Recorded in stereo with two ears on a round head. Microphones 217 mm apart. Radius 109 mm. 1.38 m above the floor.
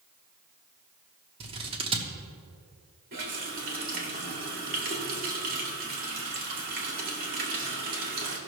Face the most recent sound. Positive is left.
turn(degrees=-35)  # may be behind; listen again after turning